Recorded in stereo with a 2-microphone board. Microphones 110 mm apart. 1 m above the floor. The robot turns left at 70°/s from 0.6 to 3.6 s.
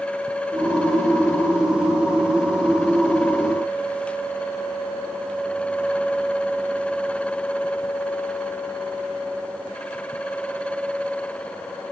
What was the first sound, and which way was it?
Only background noise.